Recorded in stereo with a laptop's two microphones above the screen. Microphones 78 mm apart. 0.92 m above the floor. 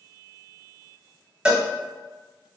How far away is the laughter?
I don't hear laughter.